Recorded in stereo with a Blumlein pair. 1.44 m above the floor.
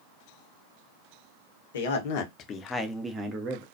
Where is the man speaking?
60° left, 1.0 m; by 3.6 s 40° right, 0.8 m.